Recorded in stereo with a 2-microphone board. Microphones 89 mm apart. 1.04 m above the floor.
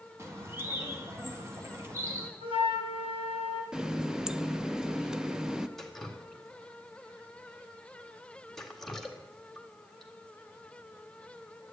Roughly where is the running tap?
Centre.